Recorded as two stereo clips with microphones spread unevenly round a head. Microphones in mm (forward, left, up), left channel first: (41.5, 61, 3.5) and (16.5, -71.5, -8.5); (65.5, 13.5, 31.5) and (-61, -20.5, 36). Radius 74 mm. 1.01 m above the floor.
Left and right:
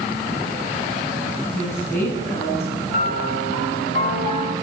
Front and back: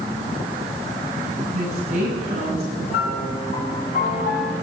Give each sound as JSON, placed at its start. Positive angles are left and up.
{"t": 1.5, "sound": "a woman speaking", "azimuth_deg": 150, "distance_m": 7.0}
{"t": 2.9, "sound": "a piano", "azimuth_deg": 45, "distance_m": 5.5}